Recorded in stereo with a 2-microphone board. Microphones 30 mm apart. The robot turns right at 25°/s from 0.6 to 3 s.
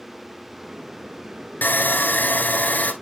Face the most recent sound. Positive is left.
turn(degrees=120)